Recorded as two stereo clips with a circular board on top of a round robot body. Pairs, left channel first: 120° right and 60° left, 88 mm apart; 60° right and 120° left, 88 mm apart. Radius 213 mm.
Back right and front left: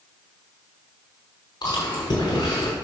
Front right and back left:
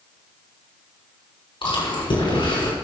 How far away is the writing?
No writing in this recording.